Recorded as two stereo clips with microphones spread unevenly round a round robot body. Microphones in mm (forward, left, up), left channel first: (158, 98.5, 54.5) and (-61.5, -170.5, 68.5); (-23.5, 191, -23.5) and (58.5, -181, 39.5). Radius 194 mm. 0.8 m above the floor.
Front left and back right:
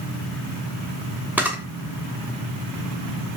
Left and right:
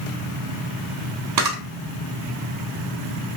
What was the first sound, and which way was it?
A camera shutter, 45° right.